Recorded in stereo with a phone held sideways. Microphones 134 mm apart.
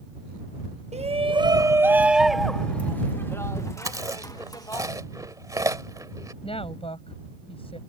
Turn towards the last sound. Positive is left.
turn(degrees=45)  # may be behind; listen again after turning